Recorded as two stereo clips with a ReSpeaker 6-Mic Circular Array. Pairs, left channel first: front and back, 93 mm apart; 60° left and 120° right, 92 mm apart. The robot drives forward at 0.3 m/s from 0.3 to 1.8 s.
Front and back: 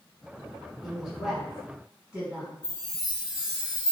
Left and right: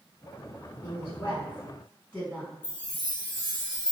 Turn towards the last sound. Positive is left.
turn(degrees=110)